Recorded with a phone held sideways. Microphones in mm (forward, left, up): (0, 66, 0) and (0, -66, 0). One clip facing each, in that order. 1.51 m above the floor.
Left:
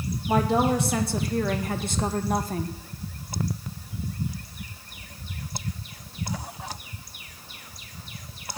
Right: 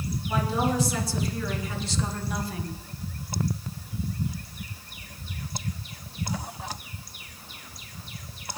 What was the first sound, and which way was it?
A woman speaking, 60° left (ahead or behind).